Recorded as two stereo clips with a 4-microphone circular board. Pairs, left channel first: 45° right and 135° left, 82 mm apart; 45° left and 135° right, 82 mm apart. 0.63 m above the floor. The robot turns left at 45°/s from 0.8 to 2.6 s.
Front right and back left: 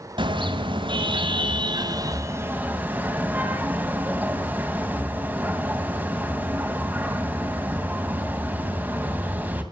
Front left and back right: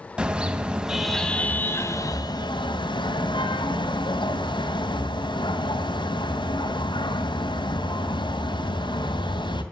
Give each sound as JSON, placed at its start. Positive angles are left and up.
{"t": 0.2, "sound": "a car horn", "azimuth_deg": 150, "distance_m": 2.5}